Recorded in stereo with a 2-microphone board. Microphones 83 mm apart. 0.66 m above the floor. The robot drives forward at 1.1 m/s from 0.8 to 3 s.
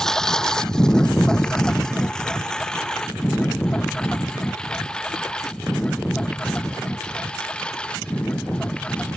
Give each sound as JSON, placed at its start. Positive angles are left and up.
{"t": 0.0, "sound": "a lawn mower", "side_deg": 5}